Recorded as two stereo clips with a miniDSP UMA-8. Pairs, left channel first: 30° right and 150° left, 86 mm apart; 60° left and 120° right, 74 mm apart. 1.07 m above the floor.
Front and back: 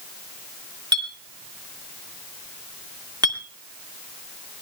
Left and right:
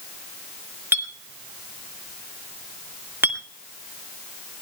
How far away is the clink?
About 1.9 m.